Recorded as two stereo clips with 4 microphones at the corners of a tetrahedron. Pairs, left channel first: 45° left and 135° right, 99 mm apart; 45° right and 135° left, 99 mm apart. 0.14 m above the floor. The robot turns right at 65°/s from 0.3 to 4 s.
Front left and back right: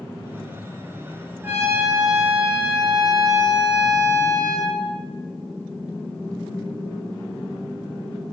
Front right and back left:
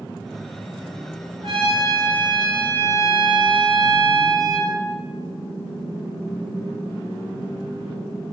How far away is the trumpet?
About 1.9 m.